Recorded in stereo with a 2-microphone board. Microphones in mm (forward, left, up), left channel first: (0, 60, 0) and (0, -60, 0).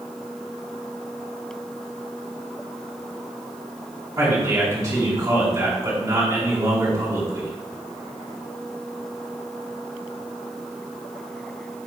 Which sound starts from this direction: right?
A man speaking, at 4.2 s.